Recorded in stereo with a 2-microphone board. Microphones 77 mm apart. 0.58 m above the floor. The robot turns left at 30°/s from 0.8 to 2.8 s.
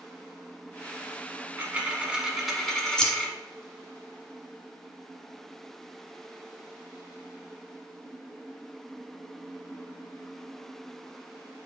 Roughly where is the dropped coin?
Behind right.